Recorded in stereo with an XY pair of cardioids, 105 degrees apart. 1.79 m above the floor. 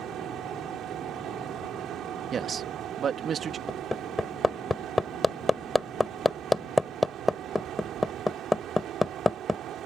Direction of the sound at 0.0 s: 70° right.